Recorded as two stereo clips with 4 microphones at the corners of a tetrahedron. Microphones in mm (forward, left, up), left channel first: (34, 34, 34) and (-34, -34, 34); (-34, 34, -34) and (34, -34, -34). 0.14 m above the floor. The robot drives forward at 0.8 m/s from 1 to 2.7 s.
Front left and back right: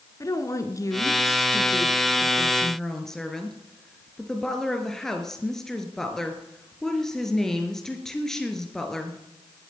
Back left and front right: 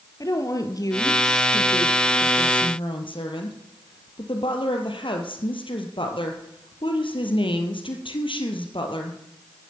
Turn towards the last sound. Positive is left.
turn(degrees=130)